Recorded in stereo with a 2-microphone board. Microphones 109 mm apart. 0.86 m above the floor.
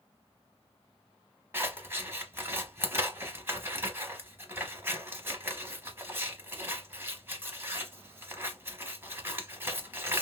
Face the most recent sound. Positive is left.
turn(degrees=-20)  # may be behind; listen again after turning